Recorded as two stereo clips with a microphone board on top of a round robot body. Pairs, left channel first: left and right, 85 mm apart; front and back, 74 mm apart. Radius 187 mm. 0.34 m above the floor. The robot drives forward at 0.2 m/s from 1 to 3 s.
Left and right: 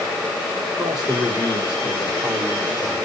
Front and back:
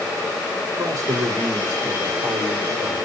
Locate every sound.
0.8 s a man speaking: 170° right, 3 m